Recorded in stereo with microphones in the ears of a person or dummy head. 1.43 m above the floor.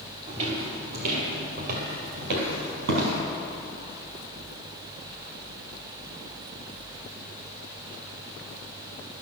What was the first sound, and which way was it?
Footsteps, 30° right (ahead or behind).